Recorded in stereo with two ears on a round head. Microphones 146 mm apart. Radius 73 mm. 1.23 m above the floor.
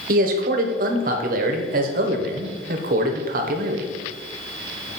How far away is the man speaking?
About 1.0 m.